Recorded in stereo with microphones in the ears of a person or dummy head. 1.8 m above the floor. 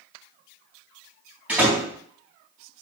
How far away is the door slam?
About 3 m.